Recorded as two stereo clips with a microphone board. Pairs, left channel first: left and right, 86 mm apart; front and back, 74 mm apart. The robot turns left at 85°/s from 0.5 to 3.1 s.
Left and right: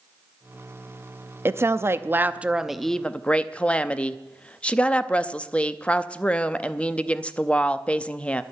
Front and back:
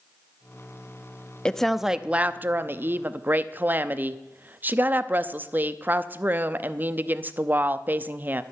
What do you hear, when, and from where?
1.4 s a woman speaking: 70° right, 0.6 m; by 8.4 s 150° left, 0.6 m